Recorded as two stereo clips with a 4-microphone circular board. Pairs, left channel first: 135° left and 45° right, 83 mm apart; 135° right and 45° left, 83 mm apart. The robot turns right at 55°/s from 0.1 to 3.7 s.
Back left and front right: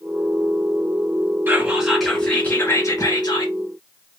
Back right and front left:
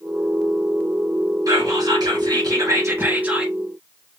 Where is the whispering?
15° left, 3 m; by 3.5 s 130° left, 3 m.